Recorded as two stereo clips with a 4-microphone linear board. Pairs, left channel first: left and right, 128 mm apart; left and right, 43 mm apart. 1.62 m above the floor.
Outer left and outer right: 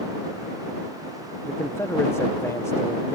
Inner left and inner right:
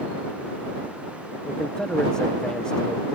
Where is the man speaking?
20° left (ahead or behind).